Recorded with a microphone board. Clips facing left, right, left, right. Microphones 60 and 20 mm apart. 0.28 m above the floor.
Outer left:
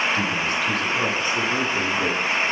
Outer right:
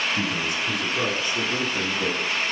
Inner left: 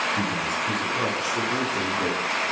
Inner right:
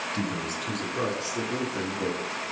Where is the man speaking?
20° right (ahead or behind), 3 m; by 2.5 s 10° left (ahead or behind), 4 m.